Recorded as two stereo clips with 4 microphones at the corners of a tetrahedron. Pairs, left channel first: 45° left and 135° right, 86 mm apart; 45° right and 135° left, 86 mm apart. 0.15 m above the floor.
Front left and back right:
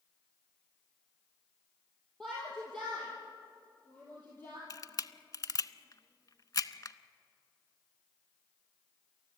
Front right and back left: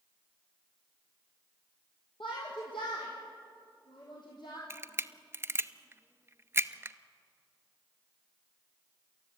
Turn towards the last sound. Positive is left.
turn(degrees=80)